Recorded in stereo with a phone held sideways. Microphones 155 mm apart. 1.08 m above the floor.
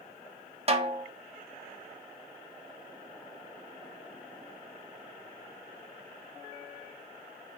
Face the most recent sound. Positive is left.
turn(degrees=-40)  # may be behind; listen again after turning